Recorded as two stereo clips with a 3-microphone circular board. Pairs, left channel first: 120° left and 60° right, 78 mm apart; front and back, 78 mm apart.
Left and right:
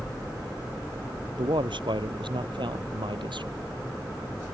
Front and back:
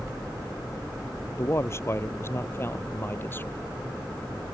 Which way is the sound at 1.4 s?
55° right.